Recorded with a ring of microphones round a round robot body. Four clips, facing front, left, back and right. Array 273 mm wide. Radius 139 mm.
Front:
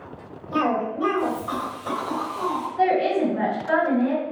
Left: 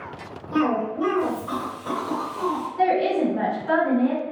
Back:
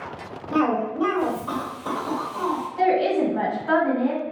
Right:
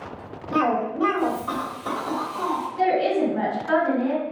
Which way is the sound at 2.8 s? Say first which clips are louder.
Even, even; 175° right.